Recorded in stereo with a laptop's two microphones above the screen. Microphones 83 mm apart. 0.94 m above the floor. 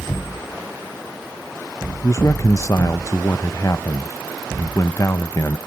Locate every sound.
2.0 s a man speaking: 40° left (ahead or behind), 0.7 m